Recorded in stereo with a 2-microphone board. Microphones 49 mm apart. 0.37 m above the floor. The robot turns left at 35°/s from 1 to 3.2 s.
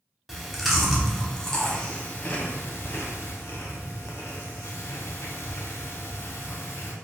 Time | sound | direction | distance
0.3 | chewing | 5° right (ahead or behind) | 0.7 m